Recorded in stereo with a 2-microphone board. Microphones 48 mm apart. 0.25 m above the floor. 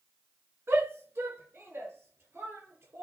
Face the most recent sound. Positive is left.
turn(degrees=-70)  # may be behind; listen again after turning